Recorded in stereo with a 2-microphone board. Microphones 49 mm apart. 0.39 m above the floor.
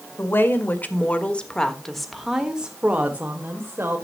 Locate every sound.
0.2 s a woman speaking: 45° left (ahead or behind), 1.7 m; by 4.0 s 45° right (ahead or behind), 1.8 m